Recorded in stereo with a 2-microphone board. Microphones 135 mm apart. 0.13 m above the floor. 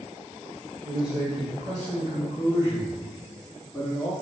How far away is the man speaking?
About 2.0 m.